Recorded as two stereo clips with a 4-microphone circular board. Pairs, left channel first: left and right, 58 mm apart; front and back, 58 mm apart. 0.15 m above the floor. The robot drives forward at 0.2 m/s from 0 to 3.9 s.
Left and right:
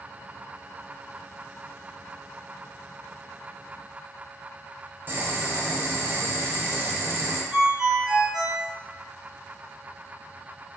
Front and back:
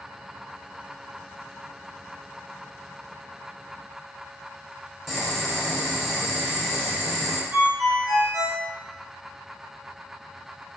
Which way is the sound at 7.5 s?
170° right.